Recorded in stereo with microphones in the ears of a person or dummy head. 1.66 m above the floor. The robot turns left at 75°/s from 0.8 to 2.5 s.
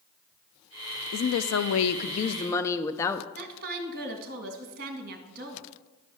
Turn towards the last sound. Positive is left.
turn(degrees=-50)  # may be behind; listen again after turning